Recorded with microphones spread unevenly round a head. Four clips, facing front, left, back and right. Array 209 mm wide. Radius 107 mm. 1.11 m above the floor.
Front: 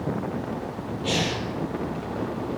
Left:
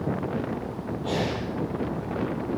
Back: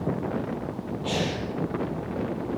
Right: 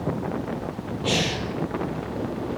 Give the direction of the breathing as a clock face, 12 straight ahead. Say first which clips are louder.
Right 2 dB, front 2 dB; 2 o'clock.